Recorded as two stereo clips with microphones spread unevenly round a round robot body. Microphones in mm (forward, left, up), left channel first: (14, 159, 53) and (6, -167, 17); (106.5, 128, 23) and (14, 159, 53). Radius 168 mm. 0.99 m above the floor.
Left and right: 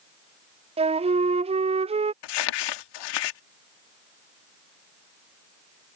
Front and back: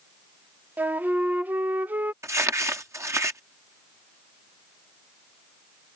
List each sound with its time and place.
0.8 s a flute: 105° right
2.2 s crumpling: 95° left